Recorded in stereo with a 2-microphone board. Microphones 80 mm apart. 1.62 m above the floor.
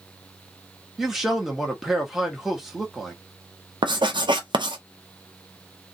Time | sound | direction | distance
1.0 | a man speaking | 5° right (ahead or behind) | 1.3 m
3.8 | writing | 75° right (ahead or behind) | 0.6 m